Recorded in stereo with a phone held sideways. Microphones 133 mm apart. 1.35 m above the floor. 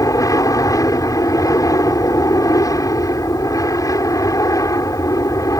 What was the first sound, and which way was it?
An aircraft, 25° left (ahead or behind).